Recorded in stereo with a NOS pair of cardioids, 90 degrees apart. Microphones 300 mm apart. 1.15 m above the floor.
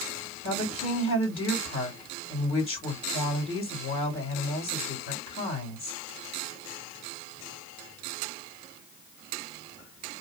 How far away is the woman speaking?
About 2.0 m.